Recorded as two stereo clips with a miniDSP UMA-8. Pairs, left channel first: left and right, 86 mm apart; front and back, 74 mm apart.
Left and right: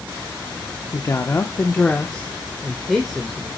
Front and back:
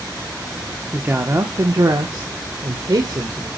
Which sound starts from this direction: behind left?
A woman speaking, at 0.9 s.